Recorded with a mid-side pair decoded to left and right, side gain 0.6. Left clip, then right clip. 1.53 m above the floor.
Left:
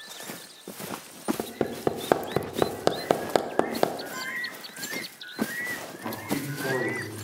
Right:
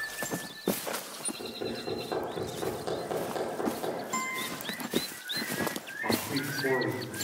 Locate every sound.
1.4 s hammering: 65° left, 0.7 m
4.1 s a guitar: 50° right, 1.3 m
6.0 s a man speaking: 5° left, 3.5 m